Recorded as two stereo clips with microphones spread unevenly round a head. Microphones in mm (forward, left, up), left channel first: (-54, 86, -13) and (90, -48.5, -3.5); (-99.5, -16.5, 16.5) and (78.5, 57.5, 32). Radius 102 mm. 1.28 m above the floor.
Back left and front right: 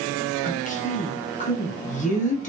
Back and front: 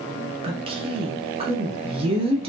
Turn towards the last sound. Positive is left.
turn(degrees=85)